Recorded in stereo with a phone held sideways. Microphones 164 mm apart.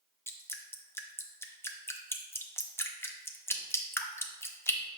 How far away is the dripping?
About 0.5 m.